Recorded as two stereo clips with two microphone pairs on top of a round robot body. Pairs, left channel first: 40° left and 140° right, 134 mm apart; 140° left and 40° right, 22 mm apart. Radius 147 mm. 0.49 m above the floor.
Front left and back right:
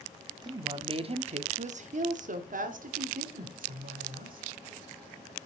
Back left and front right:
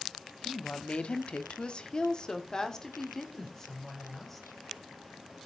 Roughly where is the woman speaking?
Behind left.